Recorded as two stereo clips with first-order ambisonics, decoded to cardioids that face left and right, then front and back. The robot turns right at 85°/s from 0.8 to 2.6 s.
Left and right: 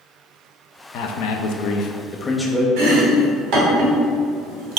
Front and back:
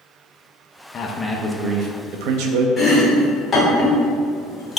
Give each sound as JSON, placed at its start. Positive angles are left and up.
{"t": 0.9, "sound": "a man speaking", "azimuth_deg": 55, "distance_m": 0.6}
{"t": 2.8, "sound": "chopping", "azimuth_deg": -80, "distance_m": 1.4}